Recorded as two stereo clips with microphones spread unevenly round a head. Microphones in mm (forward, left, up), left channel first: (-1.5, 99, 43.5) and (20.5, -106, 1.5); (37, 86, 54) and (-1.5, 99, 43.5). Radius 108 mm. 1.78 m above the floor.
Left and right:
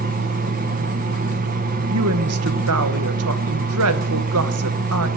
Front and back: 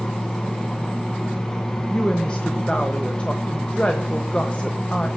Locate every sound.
0.0 s a fan: 55° right, 0.9 m
1.9 s a woman speaking: 85° right, 1.0 m